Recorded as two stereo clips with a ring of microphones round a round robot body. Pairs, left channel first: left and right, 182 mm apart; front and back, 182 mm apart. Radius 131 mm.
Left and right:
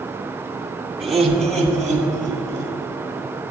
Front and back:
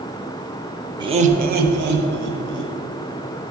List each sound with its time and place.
1.0 s laughter: 175° right, 0.9 m; by 2.7 s 175° left, 3 m